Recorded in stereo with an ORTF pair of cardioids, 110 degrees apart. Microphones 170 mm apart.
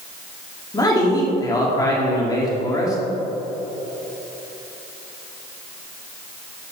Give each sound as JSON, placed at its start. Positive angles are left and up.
{"t": 0.7, "sound": "a man speaking", "azimuth_deg": 20, "distance_m": 2.0}